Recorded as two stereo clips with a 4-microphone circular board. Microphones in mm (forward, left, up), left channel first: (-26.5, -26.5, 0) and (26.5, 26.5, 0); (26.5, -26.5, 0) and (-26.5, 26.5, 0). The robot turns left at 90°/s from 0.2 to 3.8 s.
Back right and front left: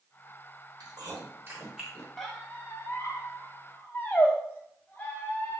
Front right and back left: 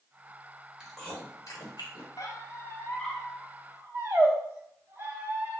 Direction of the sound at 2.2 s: 40° right.